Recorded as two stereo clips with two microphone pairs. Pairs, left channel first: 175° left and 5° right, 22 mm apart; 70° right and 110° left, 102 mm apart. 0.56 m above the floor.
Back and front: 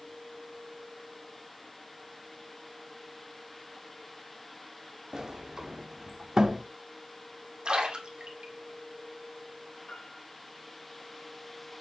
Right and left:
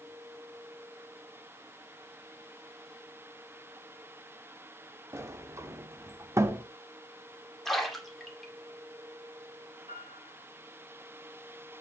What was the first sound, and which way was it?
A sliding door, 50° left.